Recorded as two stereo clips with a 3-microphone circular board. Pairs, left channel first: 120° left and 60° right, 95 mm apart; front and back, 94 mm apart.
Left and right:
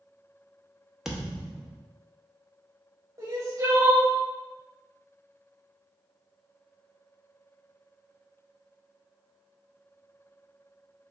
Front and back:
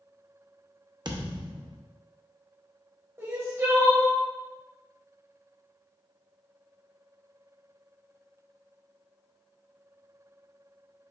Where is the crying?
120° right, 1.1 m.